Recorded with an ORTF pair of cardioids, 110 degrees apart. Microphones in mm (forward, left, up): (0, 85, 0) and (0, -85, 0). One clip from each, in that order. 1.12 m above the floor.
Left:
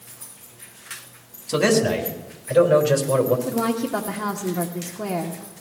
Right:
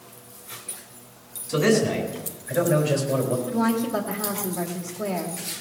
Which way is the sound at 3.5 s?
65° left.